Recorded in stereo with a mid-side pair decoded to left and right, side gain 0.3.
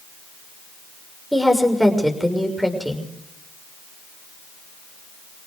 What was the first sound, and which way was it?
A woman speaking, 5° right.